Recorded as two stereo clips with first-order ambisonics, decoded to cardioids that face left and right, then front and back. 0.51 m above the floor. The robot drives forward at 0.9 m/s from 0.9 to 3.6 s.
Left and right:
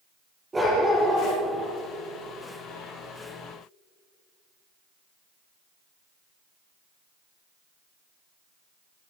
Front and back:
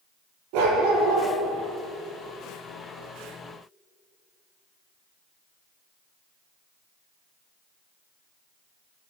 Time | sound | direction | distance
0.5 | a dog barking | 170° right | 6.5 m